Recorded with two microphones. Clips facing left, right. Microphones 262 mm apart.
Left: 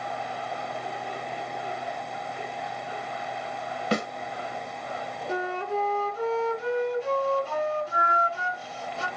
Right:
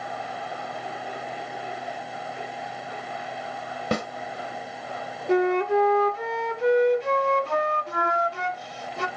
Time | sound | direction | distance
3.9 | a snare drum | 50° right (ahead or behind) | 1.1 m
5.3 | a flute | 70° right (ahead or behind) | 0.6 m